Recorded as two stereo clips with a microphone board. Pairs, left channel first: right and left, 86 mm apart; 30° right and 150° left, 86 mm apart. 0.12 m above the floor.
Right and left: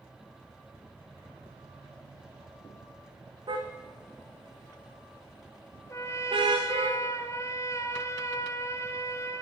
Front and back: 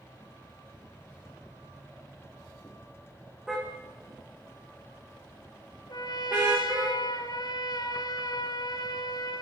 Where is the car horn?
65° left, 5 m; by 6.9 s 80° left, 7.5 m.